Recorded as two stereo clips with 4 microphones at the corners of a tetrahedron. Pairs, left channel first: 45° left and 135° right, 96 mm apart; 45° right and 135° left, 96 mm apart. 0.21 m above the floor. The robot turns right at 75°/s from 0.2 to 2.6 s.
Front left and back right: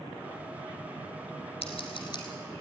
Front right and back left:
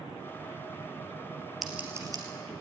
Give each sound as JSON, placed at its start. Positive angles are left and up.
{"t": 1.6, "sound": "scissors", "azimuth_deg": 45, "distance_m": 3.0}